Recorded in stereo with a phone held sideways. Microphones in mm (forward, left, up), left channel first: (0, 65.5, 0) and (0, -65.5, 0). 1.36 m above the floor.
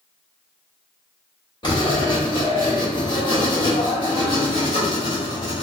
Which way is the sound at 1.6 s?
35° left (ahead or behind).